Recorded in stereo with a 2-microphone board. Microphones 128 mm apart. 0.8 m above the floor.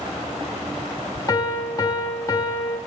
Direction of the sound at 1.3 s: 25° left (ahead or behind).